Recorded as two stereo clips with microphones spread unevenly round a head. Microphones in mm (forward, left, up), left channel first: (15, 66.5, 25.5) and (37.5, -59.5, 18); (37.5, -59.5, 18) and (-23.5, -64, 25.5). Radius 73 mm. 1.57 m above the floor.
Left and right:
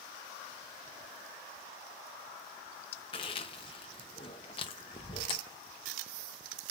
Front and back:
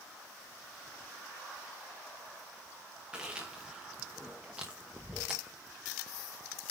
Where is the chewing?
115° left, 0.9 m.